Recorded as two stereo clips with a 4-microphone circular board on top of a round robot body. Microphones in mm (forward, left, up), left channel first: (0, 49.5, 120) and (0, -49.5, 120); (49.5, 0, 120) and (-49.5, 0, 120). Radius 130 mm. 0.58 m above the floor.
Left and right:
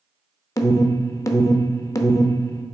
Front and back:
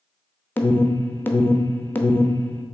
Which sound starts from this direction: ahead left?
An alarm, at 0.6 s.